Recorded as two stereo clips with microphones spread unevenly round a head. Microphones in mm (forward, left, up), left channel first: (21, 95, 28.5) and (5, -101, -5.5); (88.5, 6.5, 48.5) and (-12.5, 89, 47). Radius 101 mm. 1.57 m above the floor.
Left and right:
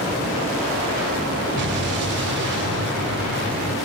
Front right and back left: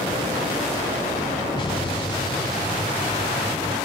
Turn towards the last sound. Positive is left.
turn(degrees=-100)